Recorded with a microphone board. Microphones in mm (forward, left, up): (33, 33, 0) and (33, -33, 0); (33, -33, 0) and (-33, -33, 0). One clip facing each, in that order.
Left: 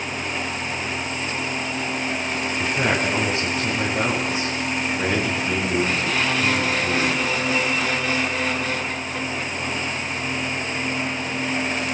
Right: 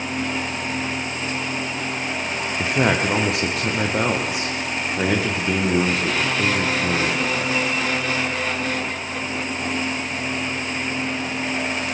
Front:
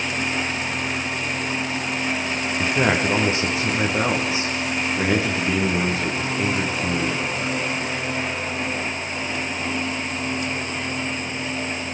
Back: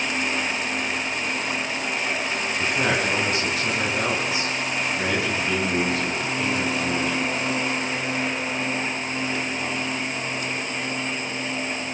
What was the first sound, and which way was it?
A man speaking, 65° right.